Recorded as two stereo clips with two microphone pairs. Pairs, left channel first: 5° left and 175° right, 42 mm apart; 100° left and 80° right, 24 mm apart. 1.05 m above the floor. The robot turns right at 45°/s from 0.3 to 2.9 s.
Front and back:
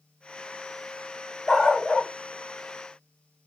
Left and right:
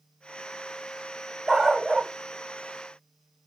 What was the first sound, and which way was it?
A dog barking, 55° right.